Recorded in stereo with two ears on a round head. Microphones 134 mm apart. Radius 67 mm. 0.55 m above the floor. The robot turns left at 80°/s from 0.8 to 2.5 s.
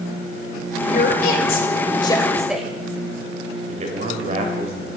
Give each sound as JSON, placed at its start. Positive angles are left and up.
{"t": 0.8, "sound": "a woman speaking", "side_deg": 45, "distance_m": 2.0}
{"t": 3.7, "sound": "a man speaking", "side_deg": -50, "distance_m": 2.5}